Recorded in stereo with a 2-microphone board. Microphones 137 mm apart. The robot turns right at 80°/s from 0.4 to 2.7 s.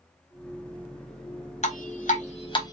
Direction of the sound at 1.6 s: 60° left (ahead or behind).